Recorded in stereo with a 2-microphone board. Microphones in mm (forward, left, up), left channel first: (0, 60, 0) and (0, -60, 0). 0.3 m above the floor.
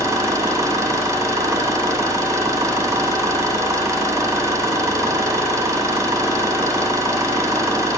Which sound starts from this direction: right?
An engine running, at 0.0 s.